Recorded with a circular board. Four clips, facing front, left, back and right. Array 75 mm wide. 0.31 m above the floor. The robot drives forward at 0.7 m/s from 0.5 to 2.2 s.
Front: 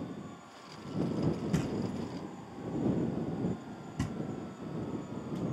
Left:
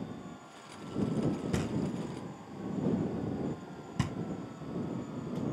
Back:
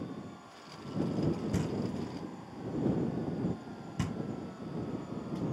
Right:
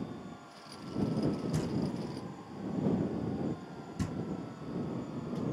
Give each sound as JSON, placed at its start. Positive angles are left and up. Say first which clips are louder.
{"t": 1.5, "sound": "knocking", "louder": "even, even", "azimuth_deg": 75, "distance_m": 1.0}